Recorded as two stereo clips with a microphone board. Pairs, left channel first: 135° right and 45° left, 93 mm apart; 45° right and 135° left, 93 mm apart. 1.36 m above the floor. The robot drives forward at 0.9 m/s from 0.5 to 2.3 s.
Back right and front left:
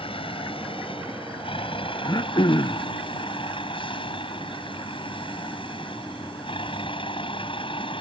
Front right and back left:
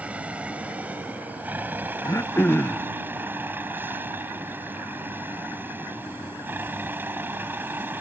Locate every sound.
0.0 s a vehicle: 150° right; by 8.0 s 155° right
2.0 s throat clearing: 95° right; by 2.9 s 110° right